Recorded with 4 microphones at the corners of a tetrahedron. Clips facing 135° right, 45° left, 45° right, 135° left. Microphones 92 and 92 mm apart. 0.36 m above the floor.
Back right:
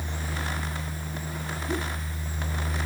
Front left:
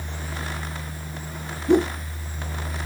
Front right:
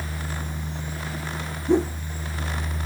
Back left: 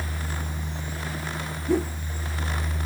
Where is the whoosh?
25° left.